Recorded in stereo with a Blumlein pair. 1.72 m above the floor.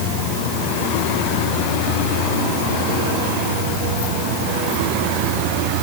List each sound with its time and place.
Only background noise.